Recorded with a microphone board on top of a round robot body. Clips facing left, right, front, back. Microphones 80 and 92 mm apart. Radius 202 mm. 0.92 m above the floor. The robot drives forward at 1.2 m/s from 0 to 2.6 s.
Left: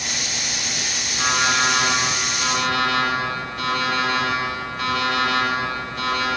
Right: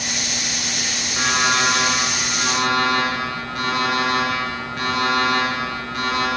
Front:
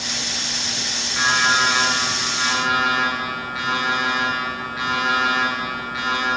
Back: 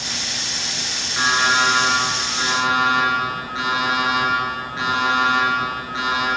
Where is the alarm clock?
105° right, 9.5 m; by 6.3 s 115° right, 10 m.